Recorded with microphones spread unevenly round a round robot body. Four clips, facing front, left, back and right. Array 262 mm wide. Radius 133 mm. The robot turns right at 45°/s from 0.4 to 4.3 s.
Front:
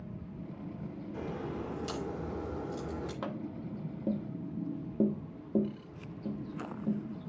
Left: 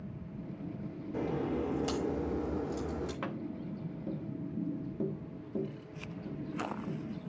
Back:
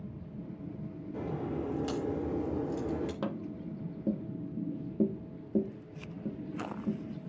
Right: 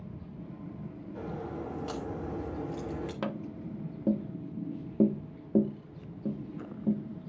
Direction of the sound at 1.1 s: 100° left.